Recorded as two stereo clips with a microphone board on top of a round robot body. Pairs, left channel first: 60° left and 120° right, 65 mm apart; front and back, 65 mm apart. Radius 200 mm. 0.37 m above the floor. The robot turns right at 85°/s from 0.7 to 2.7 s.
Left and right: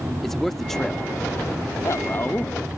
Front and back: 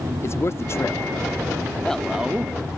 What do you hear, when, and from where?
0.2 s a man speaking: 25° right; by 2.6 s 135° left